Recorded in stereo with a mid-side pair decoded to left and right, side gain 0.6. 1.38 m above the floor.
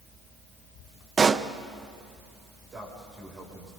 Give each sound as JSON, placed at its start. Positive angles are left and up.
{"t": 1.2, "sound": "a pop", "azimuth_deg": -30, "distance_m": 0.8}
{"t": 2.7, "sound": "a man speaking", "azimuth_deg": -30, "distance_m": 7.0}